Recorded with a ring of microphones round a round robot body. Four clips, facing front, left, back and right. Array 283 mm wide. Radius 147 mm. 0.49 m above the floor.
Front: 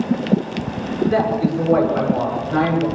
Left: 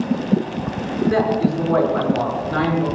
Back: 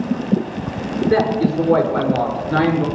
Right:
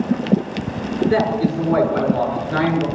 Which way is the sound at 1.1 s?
175° right.